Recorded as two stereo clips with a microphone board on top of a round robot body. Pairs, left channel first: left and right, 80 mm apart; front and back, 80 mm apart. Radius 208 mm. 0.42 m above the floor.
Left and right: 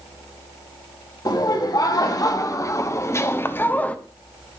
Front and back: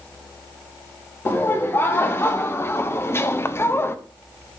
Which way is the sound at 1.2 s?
60° left.